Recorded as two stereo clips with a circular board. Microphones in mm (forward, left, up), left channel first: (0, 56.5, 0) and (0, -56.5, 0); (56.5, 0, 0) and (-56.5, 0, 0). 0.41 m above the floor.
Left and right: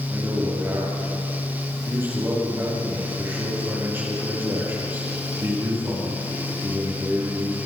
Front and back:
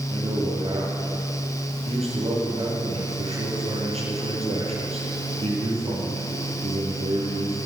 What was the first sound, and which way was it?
A man speaking, 155° right.